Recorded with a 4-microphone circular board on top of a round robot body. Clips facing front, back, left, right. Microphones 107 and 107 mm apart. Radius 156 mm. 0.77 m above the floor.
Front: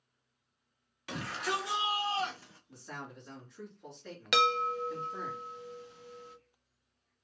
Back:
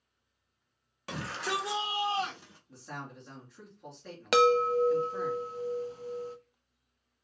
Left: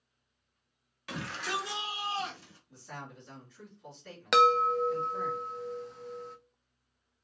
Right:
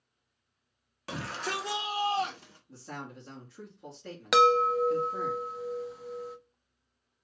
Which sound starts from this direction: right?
A man speaking, at 2.7 s.